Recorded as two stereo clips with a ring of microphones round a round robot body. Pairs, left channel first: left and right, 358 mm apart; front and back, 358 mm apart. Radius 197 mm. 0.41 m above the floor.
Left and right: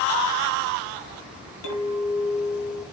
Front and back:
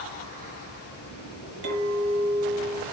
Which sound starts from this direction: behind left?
A clink, at 1.6 s.